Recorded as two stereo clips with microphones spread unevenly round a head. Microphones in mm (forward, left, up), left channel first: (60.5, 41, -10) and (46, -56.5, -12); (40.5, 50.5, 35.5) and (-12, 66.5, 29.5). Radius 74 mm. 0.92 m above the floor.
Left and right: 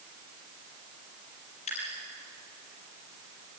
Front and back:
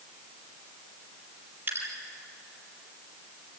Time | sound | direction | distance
1.7 | dripping | 115° left | 6 m